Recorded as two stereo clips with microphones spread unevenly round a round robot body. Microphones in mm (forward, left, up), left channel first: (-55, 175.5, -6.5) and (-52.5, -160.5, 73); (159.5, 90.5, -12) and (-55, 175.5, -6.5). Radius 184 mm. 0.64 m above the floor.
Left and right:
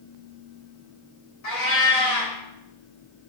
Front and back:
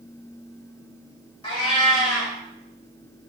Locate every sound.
1.4 s a cat meowing: 50° left, 1.4 m